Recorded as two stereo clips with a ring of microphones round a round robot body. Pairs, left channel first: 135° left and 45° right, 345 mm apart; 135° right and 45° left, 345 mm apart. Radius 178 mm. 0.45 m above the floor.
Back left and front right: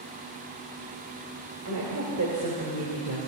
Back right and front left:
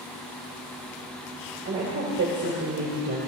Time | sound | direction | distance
1.6 | a woman speaking | 10° right | 2 m